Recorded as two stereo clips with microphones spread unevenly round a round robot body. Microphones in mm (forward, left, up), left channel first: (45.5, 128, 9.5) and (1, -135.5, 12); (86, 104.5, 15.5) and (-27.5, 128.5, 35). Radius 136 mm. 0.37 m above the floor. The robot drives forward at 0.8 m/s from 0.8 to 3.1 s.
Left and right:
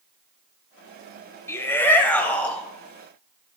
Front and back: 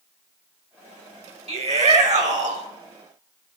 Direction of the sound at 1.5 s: 160° left.